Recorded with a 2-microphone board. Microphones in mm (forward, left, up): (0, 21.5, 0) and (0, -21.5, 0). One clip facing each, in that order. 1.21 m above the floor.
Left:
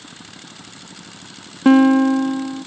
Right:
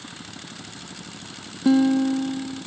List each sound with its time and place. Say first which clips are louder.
1.6 s a guitar: left 7 dB; 55° left (ahead or behind)